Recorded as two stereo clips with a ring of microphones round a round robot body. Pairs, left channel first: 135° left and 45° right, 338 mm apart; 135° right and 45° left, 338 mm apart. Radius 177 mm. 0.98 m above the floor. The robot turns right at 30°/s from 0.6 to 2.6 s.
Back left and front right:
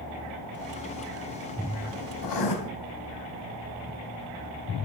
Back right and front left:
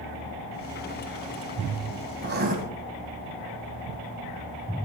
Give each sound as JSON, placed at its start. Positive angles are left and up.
{"t": 2.2, "sound": "writing", "azimuth_deg": 105, "distance_m": 2.5}